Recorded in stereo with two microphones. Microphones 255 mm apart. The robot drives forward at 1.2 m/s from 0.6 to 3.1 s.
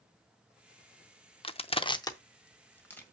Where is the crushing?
20° left (ahead or behind), 0.5 m; by 3.0 s 5° left (ahead or behind), 1.8 m.